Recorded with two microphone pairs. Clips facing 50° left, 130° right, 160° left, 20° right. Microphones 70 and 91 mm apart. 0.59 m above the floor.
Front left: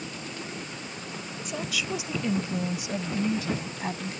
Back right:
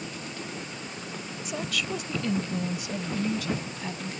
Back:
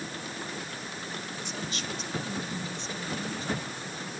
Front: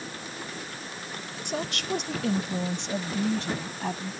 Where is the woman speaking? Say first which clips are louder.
Even, front 9 dB; 40° right; by 4.1 s 5° right.